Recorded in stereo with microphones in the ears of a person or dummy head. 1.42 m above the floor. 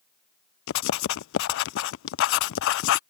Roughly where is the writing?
Left.